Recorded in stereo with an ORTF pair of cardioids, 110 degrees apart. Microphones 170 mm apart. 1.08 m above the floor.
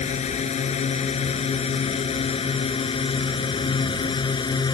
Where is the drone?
40° left; by 4.8 s 25° left.